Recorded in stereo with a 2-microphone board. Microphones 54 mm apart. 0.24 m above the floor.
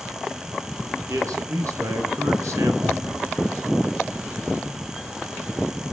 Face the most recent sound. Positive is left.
turn(degrees=-70)  # may be behind; listen again after turning